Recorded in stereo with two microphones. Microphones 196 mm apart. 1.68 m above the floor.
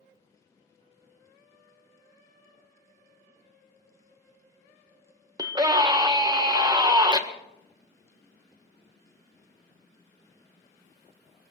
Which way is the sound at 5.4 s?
20° right (ahead or behind).